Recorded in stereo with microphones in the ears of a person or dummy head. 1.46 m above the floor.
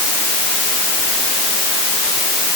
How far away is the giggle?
I don't hear a giggle.